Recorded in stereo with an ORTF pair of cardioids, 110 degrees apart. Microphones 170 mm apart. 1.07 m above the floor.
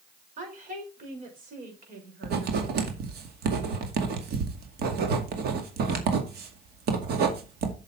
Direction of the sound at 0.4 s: 50° right.